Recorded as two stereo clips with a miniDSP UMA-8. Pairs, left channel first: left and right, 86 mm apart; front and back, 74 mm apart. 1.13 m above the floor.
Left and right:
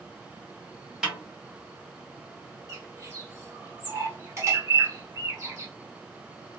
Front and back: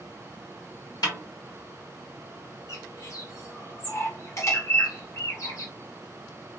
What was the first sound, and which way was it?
A snare drum, 10° right.